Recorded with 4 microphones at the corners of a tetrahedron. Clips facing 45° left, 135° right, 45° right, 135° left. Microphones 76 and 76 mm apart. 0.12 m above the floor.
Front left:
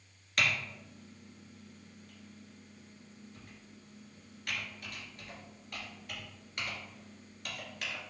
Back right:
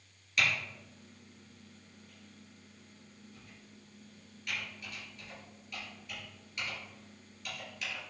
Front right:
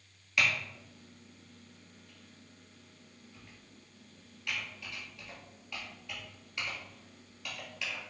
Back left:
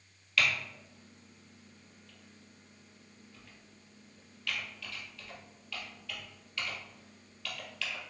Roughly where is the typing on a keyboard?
Ahead left.